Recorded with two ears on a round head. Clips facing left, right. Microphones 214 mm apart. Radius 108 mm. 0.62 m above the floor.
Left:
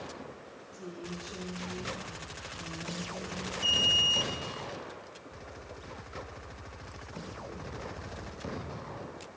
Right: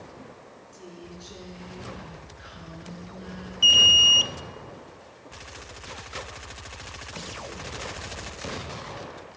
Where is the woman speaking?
35° right (ahead or behind), 8.5 m; by 3.5 s 25° right (ahead or behind), 9 m.